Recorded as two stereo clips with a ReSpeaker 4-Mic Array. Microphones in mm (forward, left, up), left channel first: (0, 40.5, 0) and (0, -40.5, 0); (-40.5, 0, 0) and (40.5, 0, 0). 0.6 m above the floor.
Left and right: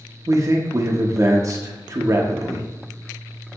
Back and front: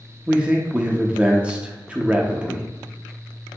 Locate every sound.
0.3 s a man speaking: 70° right, 0.7 m